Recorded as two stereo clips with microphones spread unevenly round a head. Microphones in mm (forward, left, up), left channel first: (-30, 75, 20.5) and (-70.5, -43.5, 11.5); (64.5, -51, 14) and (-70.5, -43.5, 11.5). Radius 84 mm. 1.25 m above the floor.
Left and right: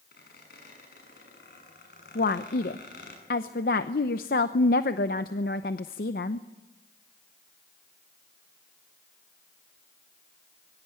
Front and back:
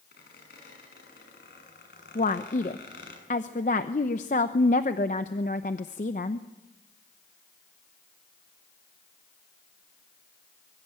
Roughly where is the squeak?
Ahead left.